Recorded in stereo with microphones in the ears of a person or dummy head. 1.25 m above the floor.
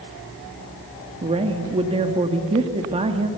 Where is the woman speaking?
30° right (ahead or behind), 1.8 m.